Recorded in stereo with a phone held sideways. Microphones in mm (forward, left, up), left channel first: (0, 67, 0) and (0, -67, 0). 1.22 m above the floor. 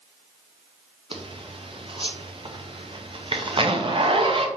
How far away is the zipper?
About 0.6 m.